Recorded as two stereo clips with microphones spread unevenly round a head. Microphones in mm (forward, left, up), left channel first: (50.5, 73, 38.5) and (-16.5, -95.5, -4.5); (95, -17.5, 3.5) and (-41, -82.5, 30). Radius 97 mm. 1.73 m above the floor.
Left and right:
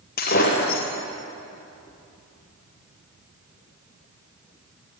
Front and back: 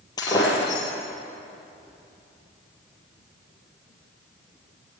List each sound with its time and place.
0.2 s breaking glass: 100° left, 4.5 m